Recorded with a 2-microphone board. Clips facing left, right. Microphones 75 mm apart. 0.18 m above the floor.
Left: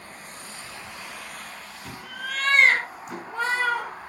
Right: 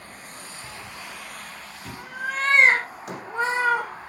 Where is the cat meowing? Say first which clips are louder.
Right 1 dB; 35° right (ahead or behind), 1.7 m; by 3.9 s 20° right (ahead or behind), 3.5 m.